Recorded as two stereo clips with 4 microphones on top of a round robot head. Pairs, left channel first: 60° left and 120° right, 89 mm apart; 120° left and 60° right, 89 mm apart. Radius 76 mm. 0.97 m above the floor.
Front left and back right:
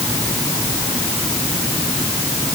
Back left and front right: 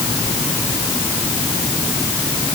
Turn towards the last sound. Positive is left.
No sound to turn to.